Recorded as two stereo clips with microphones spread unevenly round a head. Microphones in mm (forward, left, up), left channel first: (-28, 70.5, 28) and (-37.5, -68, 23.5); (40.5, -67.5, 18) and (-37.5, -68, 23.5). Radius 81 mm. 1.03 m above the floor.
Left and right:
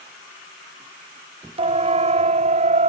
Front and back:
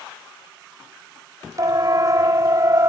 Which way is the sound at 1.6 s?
140° right.